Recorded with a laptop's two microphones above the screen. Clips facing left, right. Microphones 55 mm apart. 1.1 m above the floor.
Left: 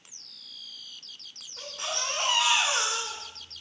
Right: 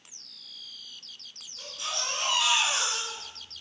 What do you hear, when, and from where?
1.6 s a baby crying: 60° left (ahead or behind), 2 m